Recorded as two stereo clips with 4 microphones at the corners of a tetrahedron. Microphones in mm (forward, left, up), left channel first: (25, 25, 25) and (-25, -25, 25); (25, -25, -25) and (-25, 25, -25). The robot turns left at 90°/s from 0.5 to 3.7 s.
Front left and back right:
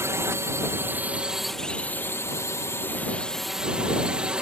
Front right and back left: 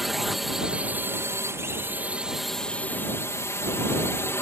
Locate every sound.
0.0 s a drone: 140° right; by 4.4 s 65° right